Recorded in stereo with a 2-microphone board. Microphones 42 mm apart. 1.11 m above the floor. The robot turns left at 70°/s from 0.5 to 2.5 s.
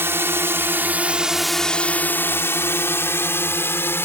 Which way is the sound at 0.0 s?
75° right (ahead or behind).